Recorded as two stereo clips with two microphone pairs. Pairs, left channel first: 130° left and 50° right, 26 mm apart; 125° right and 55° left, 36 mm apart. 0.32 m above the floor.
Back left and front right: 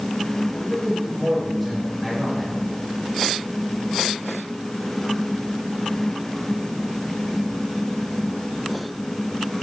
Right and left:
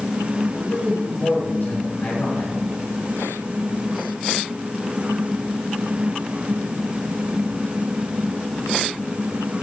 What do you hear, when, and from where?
0.5 s a man speaking: 145° right, 5 m